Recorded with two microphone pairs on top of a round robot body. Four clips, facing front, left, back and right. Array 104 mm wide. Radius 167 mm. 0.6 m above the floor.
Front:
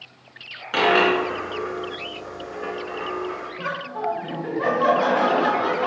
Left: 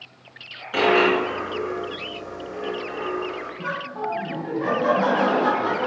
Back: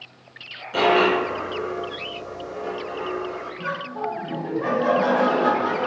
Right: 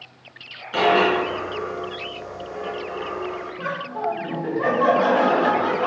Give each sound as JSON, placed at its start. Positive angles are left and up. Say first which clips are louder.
{"t": 0.7, "sound": "a dropped coin", "louder": "even, even", "azimuth_deg": 5, "distance_m": 2.5}
{"t": 3.6, "sound": "laughter", "louder": "right 3 dB, front 1 dB", "azimuth_deg": -30, "distance_m": 3.0}